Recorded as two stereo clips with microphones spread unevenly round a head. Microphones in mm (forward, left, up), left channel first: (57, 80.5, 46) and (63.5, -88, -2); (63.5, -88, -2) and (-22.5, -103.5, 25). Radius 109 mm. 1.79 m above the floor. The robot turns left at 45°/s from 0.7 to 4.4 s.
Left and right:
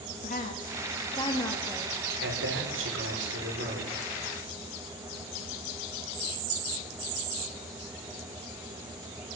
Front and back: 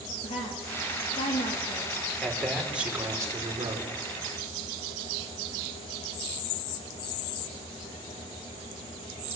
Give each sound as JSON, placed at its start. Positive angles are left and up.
{"t": 0.2, "sound": "a woman speaking", "azimuth_deg": 55, "distance_m": 3.5}
{"t": 2.2, "sound": "a man speaking", "azimuth_deg": -70, "distance_m": 5.5}